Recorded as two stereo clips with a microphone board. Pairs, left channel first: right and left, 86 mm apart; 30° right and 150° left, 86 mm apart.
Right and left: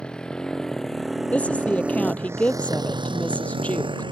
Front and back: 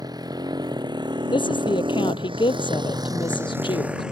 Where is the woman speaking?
15° right.